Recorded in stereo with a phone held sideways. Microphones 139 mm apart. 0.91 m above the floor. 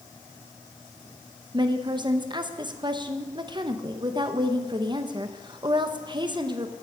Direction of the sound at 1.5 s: 35° right (ahead or behind).